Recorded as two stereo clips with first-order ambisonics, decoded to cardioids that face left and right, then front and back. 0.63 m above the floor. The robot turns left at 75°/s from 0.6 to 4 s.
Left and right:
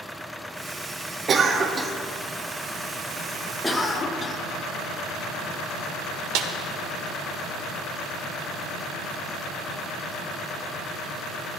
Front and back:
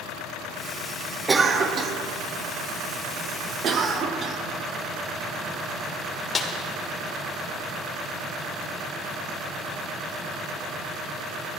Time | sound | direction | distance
1.3 | a cough | 115° right | 0.5 m
3.6 | a cough | 175° left | 0.5 m
6.3 | a snare drum | 70° right | 0.7 m